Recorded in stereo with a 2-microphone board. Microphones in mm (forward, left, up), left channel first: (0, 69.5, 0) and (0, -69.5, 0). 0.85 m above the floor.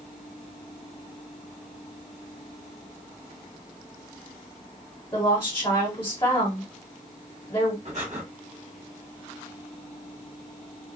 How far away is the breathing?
About 1.2 m.